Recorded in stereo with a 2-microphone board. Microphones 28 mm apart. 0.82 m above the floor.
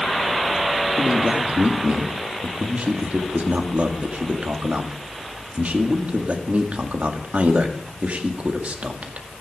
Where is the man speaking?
60° right (ahead or behind), 1.9 m.